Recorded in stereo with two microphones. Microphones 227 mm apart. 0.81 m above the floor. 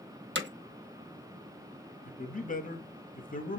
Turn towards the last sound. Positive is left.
turn(degrees=35)  # may be behind; listen again after turning